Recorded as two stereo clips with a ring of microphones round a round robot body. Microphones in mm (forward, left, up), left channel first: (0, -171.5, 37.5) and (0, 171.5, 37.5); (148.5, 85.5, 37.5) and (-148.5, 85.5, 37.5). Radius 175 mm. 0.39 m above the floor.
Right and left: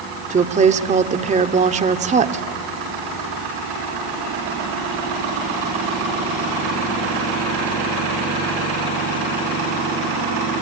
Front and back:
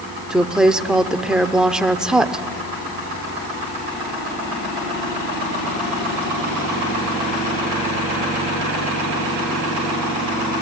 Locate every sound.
0.3 s a woman speaking: 95° left, 1.0 m